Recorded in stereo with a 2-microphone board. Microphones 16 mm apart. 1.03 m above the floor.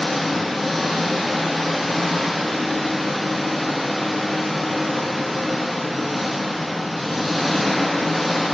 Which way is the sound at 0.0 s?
5° left (ahead or behind).